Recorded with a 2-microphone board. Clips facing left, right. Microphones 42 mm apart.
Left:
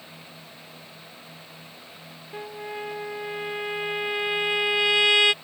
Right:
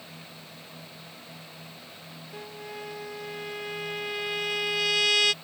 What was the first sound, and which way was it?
A trumpet, 25° left (ahead or behind).